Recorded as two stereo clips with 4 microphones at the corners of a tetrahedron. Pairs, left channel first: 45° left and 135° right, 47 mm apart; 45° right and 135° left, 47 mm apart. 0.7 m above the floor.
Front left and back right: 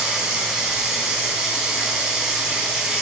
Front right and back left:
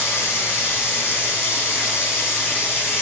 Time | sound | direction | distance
0.0 | running water | 55° right | 3 m